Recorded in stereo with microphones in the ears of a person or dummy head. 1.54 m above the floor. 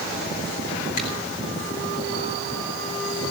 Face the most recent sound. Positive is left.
turn(degrees=45)  # may be behind; listen again after turning